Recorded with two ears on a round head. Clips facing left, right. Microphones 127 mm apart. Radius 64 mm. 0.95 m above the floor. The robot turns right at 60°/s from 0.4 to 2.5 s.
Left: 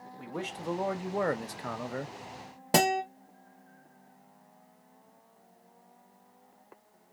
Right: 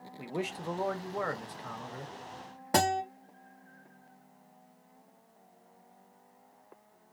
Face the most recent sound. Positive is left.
turn(degrees=25)  # may be behind; listen again after turning